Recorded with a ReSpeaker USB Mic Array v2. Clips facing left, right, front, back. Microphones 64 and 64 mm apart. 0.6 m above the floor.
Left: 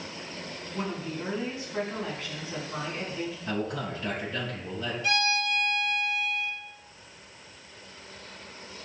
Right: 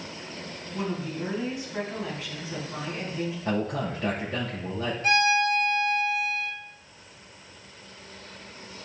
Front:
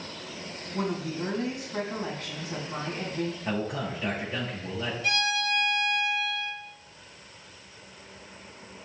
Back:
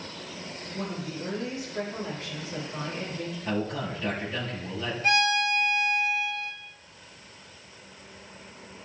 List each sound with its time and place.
0.7 s a woman speaking: 10° right, 4 m
3.5 s a man speaking: 70° right, 3 m
5.0 s a violin: 130° right, 3 m